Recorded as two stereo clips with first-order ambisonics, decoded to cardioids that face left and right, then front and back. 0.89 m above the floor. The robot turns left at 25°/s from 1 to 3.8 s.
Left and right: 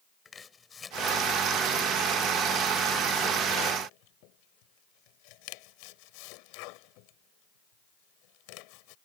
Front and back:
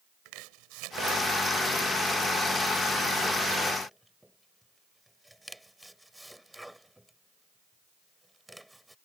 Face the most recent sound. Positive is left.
turn(degrees=90)